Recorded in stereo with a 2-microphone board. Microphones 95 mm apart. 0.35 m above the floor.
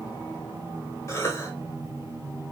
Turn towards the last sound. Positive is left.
turn(degrees=30)  # may be behind; listen again after turning